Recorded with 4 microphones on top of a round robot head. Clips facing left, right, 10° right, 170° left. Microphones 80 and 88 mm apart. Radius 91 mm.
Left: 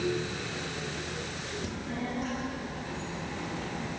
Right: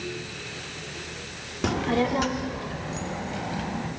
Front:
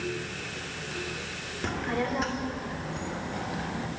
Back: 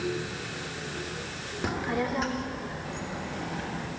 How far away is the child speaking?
About 1.4 m.